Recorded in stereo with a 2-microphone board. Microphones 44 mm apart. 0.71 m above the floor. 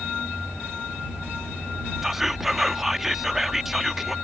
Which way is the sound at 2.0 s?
5° right (ahead or behind).